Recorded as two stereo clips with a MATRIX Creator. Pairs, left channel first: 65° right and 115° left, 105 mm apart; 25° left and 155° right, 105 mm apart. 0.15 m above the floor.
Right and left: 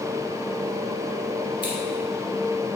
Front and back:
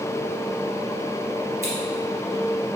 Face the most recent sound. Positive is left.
turn(degrees=-100)